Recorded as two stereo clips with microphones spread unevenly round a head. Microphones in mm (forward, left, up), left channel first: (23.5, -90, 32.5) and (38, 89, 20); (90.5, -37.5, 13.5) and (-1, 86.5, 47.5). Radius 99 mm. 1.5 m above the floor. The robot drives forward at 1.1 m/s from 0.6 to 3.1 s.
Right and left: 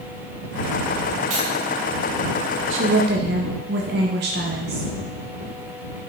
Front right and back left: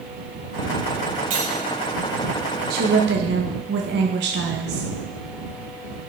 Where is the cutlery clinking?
95° left, 4 m; by 1.5 s 100° left, 4 m.